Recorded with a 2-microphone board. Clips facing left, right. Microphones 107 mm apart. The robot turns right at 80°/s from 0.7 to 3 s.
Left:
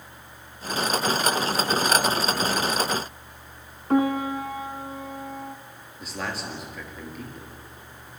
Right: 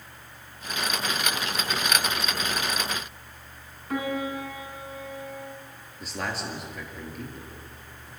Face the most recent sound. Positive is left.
turn(degrees=0)  # may be behind; listen again after turning